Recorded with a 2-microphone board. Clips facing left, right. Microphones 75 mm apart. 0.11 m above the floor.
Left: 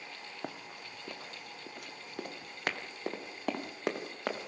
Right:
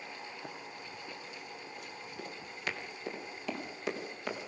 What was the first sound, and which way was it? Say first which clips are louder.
Running footsteps: left 1 dB; 65° left (ahead or behind).